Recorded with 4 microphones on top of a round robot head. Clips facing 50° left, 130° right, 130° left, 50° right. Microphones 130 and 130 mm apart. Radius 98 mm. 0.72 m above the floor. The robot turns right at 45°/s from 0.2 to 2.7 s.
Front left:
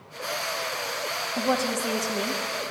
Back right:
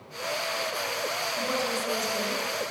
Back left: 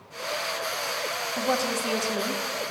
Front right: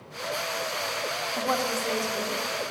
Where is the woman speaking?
30° left, 1.7 m; by 2.4 s 80° left, 1.7 m.